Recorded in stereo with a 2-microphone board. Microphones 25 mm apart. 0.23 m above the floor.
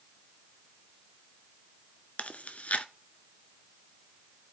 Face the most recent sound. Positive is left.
turn(degrees=75)  # may be behind; listen again after turning